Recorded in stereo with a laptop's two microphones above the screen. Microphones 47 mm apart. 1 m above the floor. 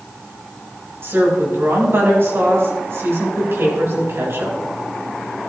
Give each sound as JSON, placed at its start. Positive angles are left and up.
{"t": 1.0, "sound": "a woman speaking", "side_deg": -60, "distance_m": 5.0}